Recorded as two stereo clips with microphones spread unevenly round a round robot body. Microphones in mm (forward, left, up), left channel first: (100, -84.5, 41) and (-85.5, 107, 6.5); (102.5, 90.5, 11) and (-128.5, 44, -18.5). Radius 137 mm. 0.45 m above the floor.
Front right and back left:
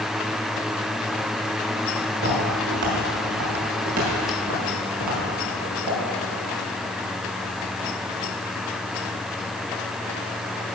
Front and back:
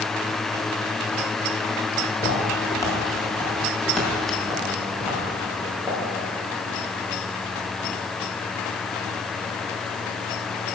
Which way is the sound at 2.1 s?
80° left.